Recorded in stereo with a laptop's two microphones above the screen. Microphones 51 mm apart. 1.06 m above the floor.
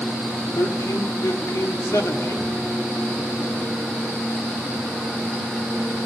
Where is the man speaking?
75° left (ahead or behind), 3 m.